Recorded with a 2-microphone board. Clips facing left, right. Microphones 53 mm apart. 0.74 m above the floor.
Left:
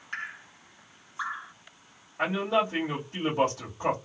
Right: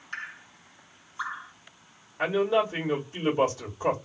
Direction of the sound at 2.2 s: 50° left (ahead or behind).